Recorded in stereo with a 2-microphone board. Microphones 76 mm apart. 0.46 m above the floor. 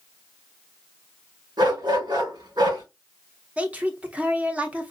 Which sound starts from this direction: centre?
A woman speaking, at 3.6 s.